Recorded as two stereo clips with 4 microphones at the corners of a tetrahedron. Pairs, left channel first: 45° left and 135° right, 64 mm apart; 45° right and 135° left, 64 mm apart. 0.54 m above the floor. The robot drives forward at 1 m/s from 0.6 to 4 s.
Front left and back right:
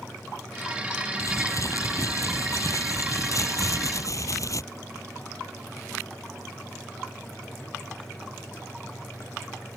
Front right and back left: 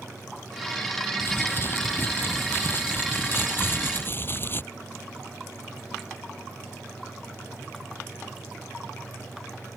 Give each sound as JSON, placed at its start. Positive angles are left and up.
{"t": 1.2, "sound": "crumpling", "azimuth_deg": 5}